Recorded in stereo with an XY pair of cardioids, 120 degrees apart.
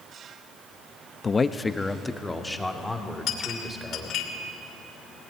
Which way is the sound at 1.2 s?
30° left.